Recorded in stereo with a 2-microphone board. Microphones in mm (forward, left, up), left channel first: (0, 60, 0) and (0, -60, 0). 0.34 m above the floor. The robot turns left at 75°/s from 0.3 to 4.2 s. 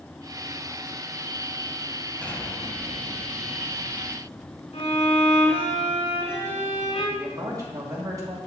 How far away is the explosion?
About 1.0 m.